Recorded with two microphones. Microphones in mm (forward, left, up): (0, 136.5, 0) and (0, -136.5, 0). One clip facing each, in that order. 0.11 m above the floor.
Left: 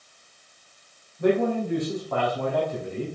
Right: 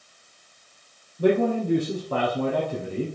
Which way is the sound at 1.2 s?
35° right (ahead or behind).